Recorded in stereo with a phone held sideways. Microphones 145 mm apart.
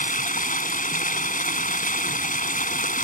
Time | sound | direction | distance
0.0 | running water | 70° left (ahead or behind) | ?